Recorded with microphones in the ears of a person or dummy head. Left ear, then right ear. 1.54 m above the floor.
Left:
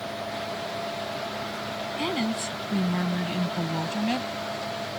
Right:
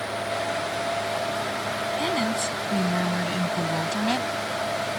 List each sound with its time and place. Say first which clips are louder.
2.0 s a woman speaking: right 2 dB; 10° right (ahead or behind); by 4.3 s 20° right (ahead or behind)